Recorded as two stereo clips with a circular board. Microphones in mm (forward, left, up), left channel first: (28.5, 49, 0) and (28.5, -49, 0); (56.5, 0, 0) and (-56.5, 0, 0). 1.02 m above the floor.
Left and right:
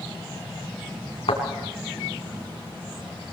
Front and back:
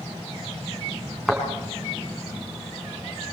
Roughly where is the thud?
Left.